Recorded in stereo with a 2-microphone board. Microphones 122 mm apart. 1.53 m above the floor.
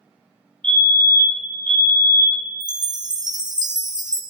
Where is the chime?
35° right (ahead or behind), 0.5 m.